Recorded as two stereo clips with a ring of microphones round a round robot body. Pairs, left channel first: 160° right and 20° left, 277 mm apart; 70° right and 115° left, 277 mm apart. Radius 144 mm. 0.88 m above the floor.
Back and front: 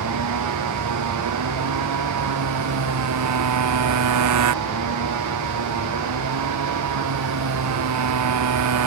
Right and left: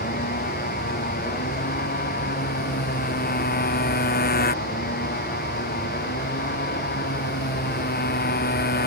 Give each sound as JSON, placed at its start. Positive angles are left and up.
{"t": 0.0, "sound": "a motorcycle", "azimuth_deg": -10}